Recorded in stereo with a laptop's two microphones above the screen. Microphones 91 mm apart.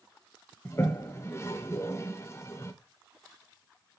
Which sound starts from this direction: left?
A toilet flushing, at 0.7 s.